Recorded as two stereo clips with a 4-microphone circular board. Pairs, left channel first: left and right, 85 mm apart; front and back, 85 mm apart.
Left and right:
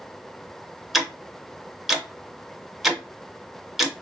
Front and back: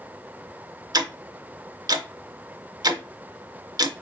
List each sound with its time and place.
0.9 s ticking: 175° right, 0.5 m